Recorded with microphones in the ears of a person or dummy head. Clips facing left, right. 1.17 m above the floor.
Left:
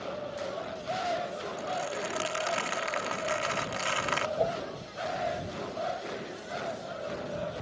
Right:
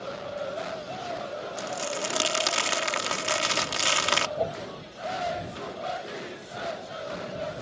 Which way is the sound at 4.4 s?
5° right (ahead or behind).